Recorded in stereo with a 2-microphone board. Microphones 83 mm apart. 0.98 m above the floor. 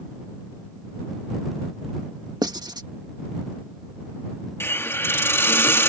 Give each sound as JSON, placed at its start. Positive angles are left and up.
{"t": 2.4, "sound": "writing", "side_deg": -55}
{"t": 4.6, "sound": "a hiss", "side_deg": 30}